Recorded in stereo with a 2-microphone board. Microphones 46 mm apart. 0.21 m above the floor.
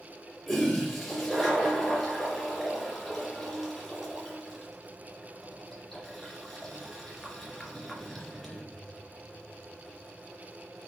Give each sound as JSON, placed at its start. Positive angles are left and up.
{"t": 0.5, "sound": "a toilet flushing", "side_deg": 0, "distance_m": 2.5}